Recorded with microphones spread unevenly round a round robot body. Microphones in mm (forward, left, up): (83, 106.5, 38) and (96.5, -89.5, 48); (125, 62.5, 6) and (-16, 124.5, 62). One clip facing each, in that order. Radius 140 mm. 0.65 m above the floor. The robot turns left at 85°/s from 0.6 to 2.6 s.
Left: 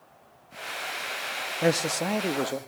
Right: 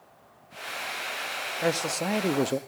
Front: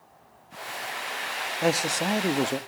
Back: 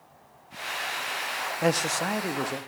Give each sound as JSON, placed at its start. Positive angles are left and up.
{"t": 1.6, "sound": "a man speaking", "azimuth_deg": 45, "distance_m": 0.9}